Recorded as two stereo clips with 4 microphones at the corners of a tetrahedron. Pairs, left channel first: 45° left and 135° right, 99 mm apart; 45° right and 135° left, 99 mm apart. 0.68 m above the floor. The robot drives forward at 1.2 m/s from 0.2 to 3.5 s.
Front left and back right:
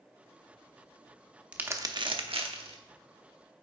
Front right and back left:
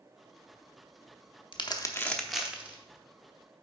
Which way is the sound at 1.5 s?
55° right.